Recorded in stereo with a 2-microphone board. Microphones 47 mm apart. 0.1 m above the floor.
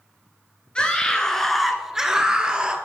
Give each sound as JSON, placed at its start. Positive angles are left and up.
{"t": 0.8, "sound": "a scream", "side_deg": 25, "distance_m": 1.3}